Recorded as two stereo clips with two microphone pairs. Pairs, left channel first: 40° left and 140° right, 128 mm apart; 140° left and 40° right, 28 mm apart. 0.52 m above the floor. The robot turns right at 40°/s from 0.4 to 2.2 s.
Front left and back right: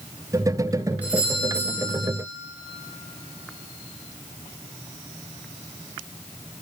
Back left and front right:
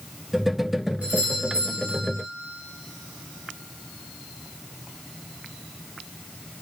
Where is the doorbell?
65° right, 4 m; by 2.1 s 25° right, 4 m.